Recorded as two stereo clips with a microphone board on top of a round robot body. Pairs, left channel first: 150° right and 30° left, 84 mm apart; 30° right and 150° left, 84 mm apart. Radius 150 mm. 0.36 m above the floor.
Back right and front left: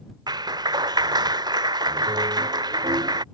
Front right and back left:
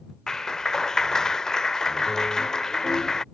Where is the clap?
50° left.